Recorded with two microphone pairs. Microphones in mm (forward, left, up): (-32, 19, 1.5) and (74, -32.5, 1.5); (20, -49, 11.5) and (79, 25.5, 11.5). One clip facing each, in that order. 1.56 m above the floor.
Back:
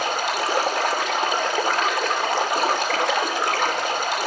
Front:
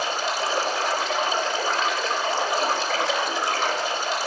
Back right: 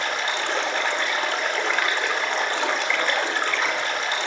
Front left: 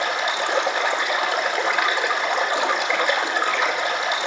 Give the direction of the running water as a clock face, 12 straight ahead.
8 o'clock.